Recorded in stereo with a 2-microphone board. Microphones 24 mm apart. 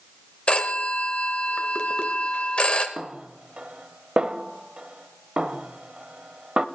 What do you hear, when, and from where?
0.5 s a phone ringing: 50° left (ahead or behind), 1.2 m
3.0 s a snare drum: 45° right (ahead or behind), 0.6 m